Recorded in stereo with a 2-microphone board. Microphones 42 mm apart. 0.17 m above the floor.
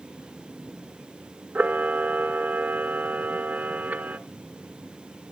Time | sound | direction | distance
1.6 | a camera shutter | 40° right (ahead or behind) | 1.0 m